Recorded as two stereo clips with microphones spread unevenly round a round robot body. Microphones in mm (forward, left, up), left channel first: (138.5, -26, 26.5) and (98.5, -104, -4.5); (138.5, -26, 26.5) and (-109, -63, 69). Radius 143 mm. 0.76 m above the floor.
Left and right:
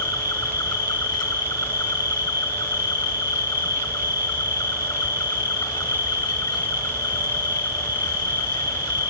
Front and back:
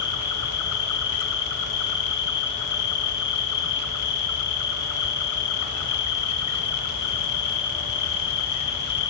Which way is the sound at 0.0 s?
20° left.